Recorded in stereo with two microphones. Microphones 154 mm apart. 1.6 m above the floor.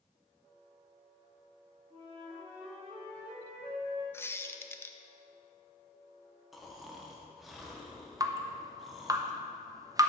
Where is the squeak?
15° left (ahead or behind), 0.6 m.